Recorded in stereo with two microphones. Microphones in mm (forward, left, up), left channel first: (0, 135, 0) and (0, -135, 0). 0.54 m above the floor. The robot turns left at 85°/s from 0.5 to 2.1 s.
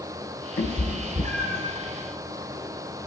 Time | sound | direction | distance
0.6 | a cat meowing | 35° left (ahead or behind) | 0.8 m